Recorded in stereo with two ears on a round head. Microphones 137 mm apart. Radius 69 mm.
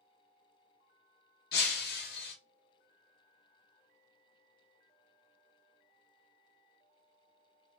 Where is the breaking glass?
70° left (ahead or behind), 0.9 m.